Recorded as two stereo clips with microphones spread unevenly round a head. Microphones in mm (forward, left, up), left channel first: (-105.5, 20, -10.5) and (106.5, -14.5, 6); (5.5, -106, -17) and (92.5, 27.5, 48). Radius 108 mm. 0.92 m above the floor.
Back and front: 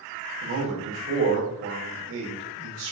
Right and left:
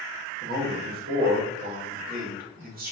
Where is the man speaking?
15° left, 1.8 m.